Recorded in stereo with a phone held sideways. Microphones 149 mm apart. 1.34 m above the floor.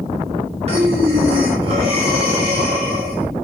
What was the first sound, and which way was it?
Breathing, 45° right (ahead or behind).